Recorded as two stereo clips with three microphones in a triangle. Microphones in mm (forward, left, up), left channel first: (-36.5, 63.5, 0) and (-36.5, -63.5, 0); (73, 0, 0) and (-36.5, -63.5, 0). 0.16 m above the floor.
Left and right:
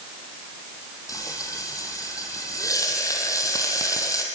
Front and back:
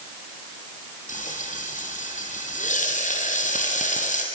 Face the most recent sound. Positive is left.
turn(degrees=25)